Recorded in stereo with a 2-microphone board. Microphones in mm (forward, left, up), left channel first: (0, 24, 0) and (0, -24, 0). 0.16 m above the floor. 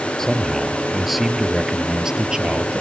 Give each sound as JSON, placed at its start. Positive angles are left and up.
{"t": 0.2, "sound": "a man speaking", "side_deg": 10}